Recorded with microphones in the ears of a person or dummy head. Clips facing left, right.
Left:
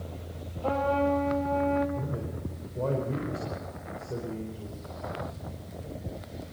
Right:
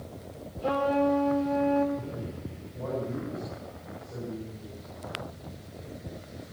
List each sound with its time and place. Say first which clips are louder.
0.6 s a trumpet: right 1 dB; 30° right (ahead or behind), 4 m
1.9 s a man speaking: left 1 dB; 60° left (ahead or behind), 4.5 m